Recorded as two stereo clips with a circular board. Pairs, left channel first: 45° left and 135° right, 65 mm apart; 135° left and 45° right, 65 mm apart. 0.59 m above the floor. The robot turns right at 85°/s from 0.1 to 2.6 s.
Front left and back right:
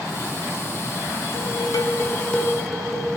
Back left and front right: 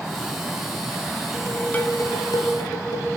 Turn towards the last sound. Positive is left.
turn(degrees=140)